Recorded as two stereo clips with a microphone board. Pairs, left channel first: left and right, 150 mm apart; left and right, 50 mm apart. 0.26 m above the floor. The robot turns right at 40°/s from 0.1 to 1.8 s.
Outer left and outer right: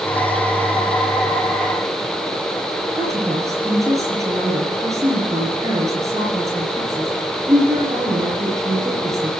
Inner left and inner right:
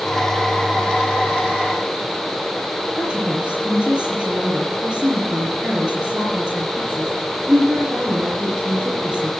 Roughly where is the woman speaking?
Right.